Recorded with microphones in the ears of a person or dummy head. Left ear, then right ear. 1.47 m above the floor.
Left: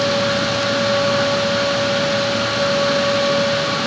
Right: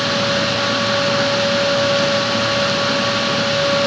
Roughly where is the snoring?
I don't hear snoring.